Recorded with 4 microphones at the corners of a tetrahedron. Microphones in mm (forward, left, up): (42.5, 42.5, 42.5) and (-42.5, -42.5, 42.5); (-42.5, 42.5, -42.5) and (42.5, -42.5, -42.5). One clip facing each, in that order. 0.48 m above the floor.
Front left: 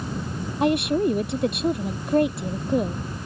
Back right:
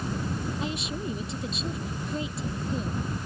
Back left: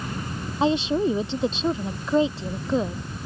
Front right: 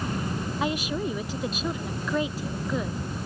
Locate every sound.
0.6 s a woman speaking: 70° left